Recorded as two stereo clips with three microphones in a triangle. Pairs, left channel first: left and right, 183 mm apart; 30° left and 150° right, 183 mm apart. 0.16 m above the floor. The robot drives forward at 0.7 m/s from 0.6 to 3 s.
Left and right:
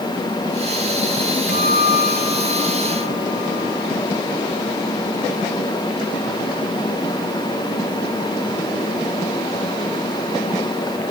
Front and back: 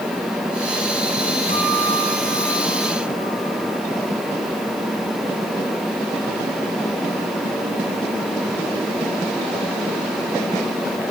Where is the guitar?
70° left, 3.5 m; by 3.8 s 90° left, 3.5 m.